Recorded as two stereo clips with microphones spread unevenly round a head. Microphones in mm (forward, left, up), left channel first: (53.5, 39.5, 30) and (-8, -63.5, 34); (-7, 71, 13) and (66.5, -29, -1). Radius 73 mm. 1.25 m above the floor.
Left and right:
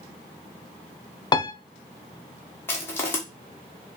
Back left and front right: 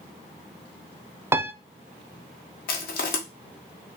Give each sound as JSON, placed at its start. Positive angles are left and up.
{"t": 1.3, "sound": "a piano", "azimuth_deg": 10, "distance_m": 0.5}
{"t": 2.7, "sound": "crushing", "azimuth_deg": 130, "distance_m": 1.3}